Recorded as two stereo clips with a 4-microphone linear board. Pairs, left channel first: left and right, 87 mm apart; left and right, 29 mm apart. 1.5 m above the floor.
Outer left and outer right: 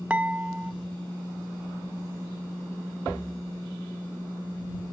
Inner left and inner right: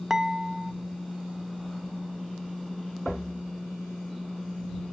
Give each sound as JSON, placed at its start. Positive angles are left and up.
{"t": 0.1, "sound": "dishes clattering", "side_deg": -15}